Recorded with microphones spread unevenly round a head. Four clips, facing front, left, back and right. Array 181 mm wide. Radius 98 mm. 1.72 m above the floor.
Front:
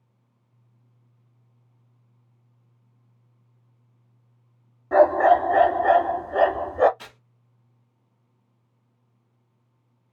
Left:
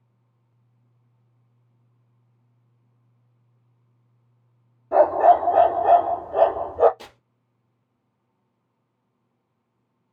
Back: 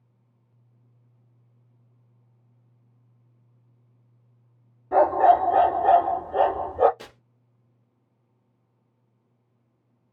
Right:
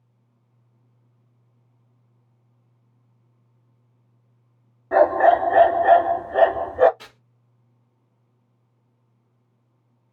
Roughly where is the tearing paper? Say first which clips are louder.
Left 3 dB, back 1 dB; behind.